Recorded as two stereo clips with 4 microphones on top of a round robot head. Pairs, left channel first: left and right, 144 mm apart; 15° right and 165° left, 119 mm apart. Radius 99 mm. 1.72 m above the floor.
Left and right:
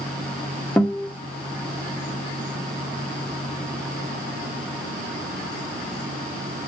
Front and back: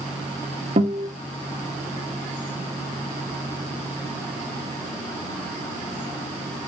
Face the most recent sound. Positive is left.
turn(degrees=165)